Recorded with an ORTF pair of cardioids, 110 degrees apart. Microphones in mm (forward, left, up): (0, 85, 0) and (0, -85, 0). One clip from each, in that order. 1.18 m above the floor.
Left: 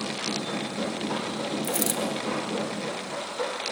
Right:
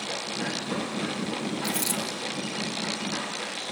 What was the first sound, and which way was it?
A dropped coin, 35° left.